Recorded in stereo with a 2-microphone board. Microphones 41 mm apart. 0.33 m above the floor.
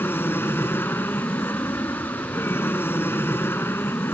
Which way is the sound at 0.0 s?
65° left (ahead or behind).